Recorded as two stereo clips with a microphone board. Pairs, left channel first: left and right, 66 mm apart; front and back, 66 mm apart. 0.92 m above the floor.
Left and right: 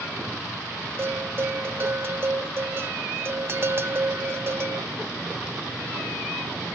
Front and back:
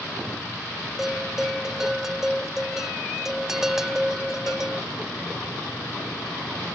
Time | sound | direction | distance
1.0 | a bell | 100° right | ?